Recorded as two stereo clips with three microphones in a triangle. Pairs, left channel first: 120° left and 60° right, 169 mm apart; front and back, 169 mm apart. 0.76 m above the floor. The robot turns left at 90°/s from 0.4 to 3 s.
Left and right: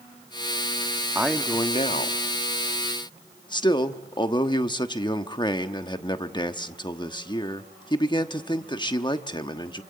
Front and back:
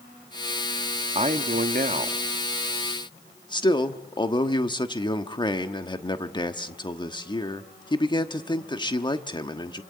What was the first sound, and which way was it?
A man speaking, 135° right.